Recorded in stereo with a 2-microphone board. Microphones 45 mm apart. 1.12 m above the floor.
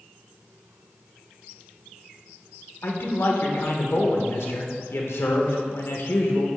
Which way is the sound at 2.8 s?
65° left (ahead or behind).